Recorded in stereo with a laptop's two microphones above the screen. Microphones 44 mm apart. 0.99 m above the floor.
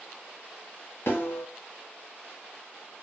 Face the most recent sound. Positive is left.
turn(degrees=55)  # may be behind; listen again after turning